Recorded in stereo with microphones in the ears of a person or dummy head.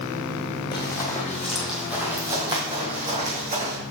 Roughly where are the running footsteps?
Left.